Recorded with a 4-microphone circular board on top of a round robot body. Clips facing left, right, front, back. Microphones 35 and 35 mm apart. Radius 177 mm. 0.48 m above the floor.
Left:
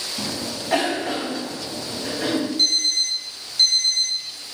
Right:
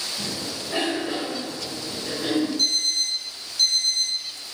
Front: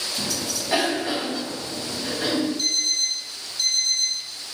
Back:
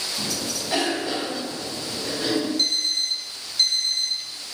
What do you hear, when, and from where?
0.2 s a cough: 75° left, 3.5 m
2.6 s an alarm clock: 135° left, 3.5 m